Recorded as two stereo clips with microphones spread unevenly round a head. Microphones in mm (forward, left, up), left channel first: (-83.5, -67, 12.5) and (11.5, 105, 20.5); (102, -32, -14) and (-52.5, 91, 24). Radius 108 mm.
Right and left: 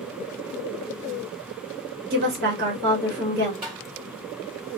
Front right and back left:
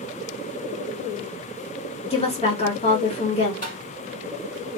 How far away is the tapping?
About 1.7 m.